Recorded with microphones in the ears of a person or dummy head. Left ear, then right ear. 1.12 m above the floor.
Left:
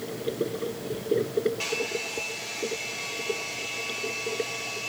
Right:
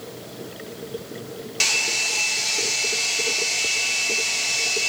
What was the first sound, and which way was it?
A hair dryer, 55° right (ahead or behind).